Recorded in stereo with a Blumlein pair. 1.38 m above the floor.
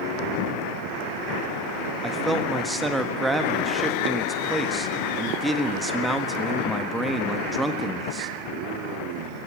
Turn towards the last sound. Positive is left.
turn(degrees=-5)